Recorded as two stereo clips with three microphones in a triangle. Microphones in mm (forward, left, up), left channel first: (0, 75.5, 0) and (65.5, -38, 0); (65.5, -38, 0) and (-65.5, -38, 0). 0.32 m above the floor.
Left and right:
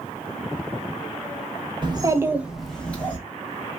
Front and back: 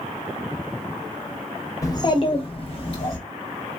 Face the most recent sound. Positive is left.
turn(degrees=45)